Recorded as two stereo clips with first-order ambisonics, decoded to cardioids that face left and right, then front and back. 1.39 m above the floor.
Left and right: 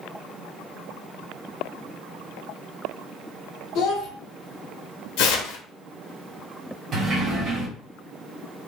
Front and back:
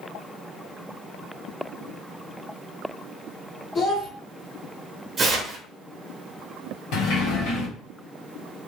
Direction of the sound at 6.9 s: 30° right.